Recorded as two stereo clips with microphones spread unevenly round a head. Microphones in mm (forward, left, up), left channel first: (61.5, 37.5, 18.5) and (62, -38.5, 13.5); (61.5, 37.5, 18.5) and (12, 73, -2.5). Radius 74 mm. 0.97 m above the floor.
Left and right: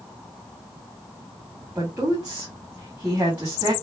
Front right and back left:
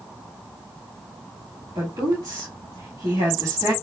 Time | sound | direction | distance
1.8 | a woman speaking | 170° right | 2.5 m